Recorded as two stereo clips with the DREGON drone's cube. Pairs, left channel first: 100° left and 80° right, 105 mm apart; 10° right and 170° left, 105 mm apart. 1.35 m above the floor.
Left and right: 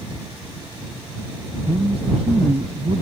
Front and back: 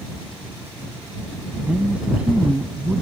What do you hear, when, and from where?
1.6 s a woman speaking: 110° right